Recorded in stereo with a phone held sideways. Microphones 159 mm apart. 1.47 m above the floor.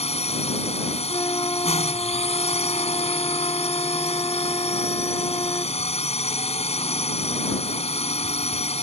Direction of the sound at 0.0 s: 40° left (ahead or behind).